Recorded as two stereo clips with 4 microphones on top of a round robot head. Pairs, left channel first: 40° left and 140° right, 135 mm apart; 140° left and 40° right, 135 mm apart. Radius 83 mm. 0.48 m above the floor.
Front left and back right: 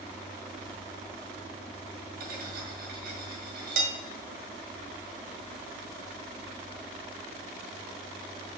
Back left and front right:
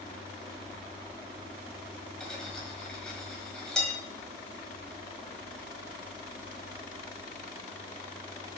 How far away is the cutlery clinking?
About 1.8 m.